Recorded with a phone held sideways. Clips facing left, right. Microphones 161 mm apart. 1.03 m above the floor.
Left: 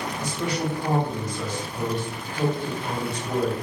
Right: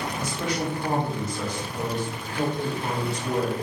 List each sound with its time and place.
0.2 s a man speaking: 75° right (ahead or behind), 2 m